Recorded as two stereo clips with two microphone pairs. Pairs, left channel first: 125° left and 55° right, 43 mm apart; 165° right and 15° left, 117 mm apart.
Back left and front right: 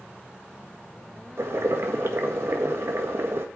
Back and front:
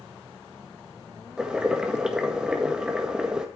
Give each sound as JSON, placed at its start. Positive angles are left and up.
{"t": 1.4, "sound": "boiling", "azimuth_deg": -65, "distance_m": 1.6}